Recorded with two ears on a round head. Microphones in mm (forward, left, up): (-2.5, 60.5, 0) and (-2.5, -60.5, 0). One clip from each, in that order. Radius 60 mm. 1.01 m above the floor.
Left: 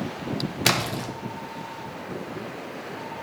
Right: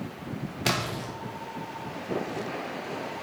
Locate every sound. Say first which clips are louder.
0.7 s a splash: left 4 dB; 30° left (ahead or behind), 1.0 m